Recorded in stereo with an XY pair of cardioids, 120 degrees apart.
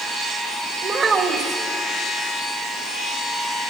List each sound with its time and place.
0.8 s a child speaking: 40° right, 3 m